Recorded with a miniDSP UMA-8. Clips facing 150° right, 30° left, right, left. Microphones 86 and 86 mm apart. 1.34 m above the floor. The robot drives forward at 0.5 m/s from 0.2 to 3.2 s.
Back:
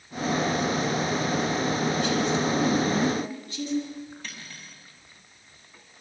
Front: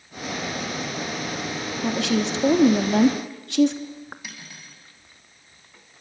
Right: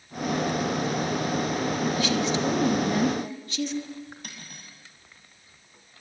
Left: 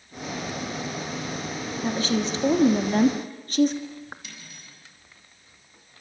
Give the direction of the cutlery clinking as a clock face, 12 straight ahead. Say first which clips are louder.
Even, right 1 dB; 2 o'clock.